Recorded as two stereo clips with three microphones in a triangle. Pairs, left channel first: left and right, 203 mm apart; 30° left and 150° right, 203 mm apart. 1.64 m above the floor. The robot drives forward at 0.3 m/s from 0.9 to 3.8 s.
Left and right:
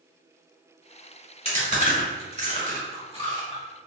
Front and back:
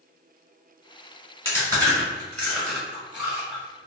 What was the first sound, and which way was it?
Chewing, 95° left.